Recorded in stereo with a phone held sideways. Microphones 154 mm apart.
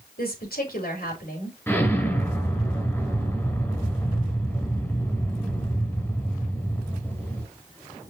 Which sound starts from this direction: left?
A woman speaking, at 0.2 s.